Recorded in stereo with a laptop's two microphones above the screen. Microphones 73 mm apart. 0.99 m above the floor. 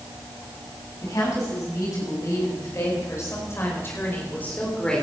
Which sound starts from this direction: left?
A woman speaking, at 1.0 s.